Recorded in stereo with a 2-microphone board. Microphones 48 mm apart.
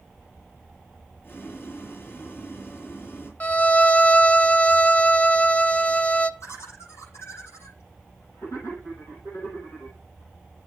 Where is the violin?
35° left (ahead or behind), 0.5 m.